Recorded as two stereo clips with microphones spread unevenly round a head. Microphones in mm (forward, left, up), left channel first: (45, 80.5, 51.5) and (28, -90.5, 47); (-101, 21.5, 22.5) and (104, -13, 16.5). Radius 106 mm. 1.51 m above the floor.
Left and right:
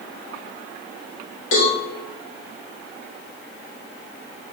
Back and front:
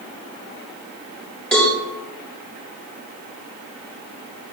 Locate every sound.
1.5 s a cowbell: 85° left, 1.5 m